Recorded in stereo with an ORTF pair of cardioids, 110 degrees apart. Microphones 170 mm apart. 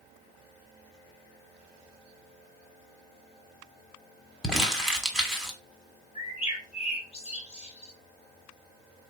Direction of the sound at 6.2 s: 35° left.